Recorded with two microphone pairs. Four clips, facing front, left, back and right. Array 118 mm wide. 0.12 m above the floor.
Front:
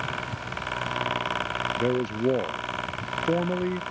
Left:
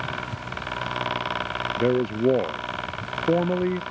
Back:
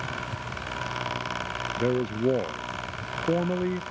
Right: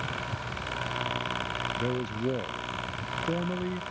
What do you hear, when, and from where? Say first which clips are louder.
1.8 s a man speaking: left 11 dB, back 1 dB; 90° left